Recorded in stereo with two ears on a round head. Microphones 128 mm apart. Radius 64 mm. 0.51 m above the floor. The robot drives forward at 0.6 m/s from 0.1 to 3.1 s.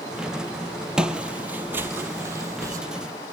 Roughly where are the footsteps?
Centre.